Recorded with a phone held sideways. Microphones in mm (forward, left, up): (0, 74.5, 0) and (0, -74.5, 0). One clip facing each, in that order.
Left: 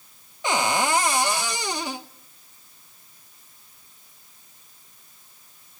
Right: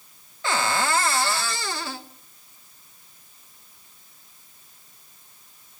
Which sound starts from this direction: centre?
A cupboard door, at 0.4 s.